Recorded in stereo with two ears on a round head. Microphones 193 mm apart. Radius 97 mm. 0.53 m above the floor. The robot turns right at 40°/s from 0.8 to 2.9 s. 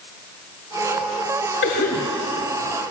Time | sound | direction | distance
1.6 | a cough | 55° left (ahead or behind) | 2.5 m